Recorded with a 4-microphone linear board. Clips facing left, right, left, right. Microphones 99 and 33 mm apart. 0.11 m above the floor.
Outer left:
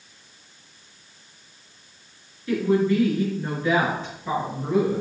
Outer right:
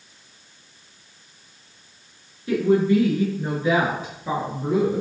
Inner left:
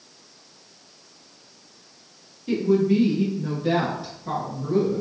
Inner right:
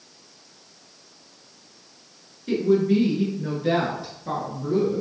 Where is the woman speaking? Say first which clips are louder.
Outer right 2 dB, even; 25° right (ahead or behind), 1.7 m; by 5.0 s 5° right (ahead or behind), 2.5 m.